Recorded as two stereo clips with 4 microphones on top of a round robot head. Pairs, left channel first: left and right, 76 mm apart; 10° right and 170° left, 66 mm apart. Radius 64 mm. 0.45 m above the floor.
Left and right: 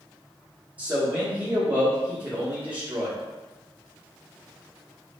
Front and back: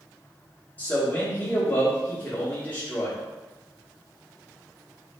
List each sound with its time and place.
0.8 s a man speaking: 45° right, 1.0 m